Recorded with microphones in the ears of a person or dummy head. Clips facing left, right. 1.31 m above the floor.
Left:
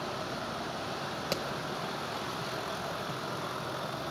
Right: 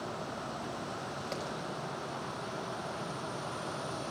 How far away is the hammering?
About 4.5 m.